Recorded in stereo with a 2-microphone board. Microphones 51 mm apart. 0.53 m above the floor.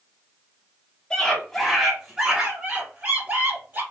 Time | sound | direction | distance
1.1 | a scream | 20° left (ahead or behind) | 1.0 m